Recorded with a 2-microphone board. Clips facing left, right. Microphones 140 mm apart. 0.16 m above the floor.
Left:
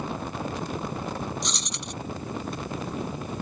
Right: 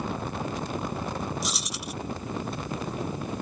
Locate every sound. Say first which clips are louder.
1.4 s keys jangling: right 1 dB; 5° right (ahead or behind)